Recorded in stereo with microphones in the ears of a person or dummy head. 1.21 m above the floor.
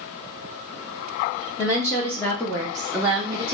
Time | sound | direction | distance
1.6 | a woman speaking | 15° left (ahead or behind) | 1.1 m